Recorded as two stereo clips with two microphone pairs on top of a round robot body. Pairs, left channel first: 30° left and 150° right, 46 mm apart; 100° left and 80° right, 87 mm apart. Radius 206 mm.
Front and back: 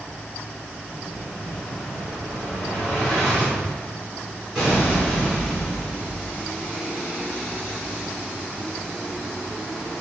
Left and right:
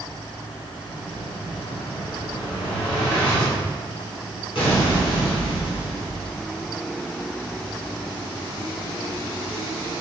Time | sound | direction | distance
0.9 | an explosion | 125° left | 2.5 m